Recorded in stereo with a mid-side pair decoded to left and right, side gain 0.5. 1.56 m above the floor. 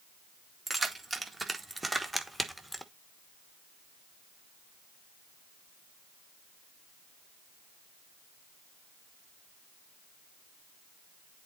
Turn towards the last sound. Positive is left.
turn(degrees=0)